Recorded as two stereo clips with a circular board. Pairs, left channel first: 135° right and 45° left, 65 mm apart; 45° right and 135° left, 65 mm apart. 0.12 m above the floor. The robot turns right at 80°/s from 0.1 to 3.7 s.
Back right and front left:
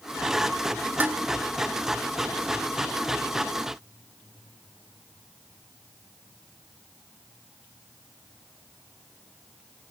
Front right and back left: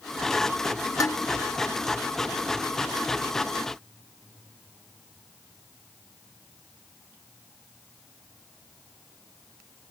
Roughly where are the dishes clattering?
Ahead.